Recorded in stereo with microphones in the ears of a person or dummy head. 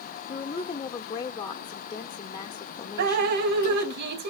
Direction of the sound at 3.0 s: 55° right (ahead or behind).